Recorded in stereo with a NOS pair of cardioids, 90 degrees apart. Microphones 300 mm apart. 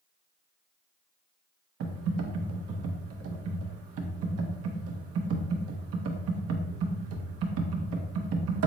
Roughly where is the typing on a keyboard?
Ahead right.